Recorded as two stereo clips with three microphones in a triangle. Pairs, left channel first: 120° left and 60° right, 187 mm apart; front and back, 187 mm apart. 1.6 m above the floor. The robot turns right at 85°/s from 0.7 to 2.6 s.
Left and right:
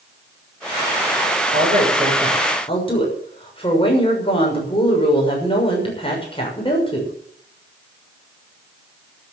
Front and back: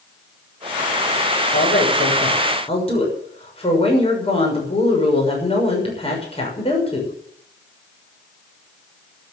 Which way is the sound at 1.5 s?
30° right.